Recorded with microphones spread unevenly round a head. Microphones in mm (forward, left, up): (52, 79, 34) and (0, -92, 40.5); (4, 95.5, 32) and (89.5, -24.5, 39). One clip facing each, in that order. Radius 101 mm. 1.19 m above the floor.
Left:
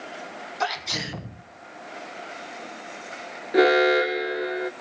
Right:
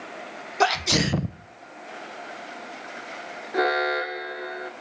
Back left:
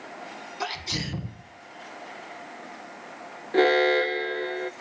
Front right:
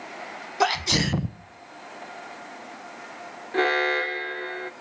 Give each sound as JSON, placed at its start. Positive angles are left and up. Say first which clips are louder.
{"t": 0.6, "sound": "a sneeze", "louder": "right 8 dB, front right 10 dB", "azimuth_deg": -90, "distance_m": 1.2}
{"t": 3.5, "sound": "an alarm", "louder": "left 7 dB, back left 4 dB", "azimuth_deg": 100, "distance_m": 1.1}